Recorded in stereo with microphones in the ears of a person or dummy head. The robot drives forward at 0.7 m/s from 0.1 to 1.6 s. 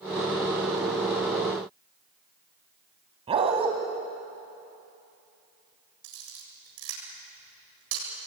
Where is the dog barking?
30° right (ahead or behind), 2.5 m.